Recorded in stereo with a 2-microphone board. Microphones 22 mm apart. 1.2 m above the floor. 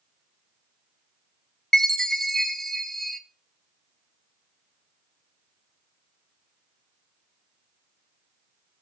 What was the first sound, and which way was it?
A chime, 15° left (ahead or behind).